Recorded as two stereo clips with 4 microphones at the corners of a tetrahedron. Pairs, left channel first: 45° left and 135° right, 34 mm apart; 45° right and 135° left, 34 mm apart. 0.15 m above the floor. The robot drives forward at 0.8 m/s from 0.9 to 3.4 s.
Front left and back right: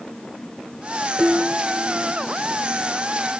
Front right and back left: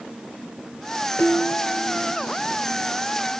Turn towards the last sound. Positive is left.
turn(degrees=-110)